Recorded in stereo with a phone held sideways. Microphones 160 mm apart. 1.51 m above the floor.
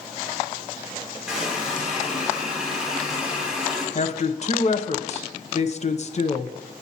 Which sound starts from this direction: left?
A woman speaking, at 4.0 s.